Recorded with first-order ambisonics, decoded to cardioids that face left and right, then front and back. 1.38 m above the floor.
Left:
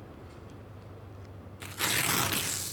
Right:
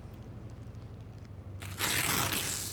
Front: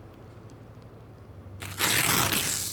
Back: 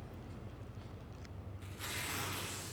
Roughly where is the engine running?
Right.